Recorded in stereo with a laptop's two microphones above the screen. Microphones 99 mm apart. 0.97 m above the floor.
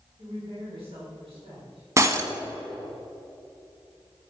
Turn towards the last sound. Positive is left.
turn(degrees=-30)  # may be behind; listen again after turning